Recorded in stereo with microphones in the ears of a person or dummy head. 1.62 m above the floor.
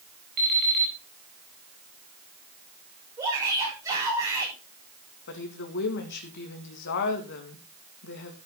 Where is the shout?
20° right (ahead or behind), 7 m.